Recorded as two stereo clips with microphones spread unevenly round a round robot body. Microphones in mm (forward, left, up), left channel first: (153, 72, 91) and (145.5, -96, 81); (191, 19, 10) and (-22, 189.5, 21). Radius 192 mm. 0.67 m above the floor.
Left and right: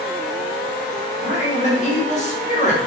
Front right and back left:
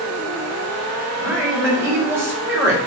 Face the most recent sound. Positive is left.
turn(degrees=60)